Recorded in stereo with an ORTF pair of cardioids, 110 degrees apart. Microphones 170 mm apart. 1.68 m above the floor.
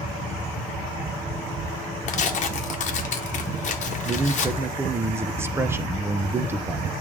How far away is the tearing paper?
About 1.2 m.